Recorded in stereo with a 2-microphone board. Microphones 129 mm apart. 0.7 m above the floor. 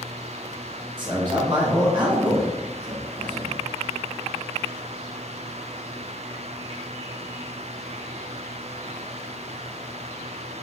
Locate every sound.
1.0 s a man speaking: 35° right (ahead or behind), 0.9 m